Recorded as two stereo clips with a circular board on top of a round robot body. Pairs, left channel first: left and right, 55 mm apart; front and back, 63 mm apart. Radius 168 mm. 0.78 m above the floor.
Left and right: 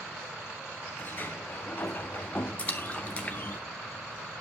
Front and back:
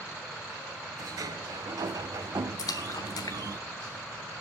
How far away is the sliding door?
About 0.6 m.